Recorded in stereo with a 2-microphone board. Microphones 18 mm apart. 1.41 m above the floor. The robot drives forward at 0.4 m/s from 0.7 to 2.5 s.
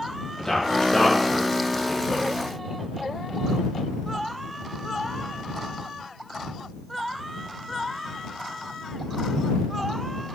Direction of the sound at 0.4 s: 25° left (ahead or behind).